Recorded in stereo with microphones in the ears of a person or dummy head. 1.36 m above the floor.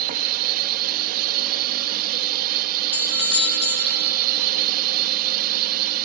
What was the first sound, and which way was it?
A drone, 50° right (ahead or behind).